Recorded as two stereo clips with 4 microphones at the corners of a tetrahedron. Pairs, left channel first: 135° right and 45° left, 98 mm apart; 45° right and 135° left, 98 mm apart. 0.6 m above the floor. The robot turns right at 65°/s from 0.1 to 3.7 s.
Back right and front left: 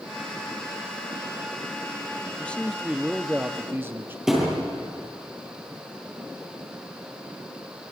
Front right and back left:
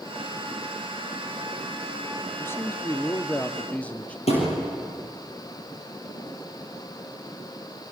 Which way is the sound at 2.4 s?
75° right.